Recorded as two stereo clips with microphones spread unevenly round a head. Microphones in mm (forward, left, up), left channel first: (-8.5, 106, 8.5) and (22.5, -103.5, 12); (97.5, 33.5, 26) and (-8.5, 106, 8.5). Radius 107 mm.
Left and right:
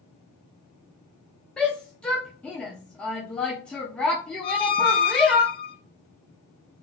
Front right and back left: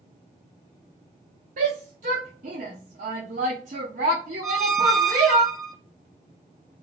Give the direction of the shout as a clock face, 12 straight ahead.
6 o'clock.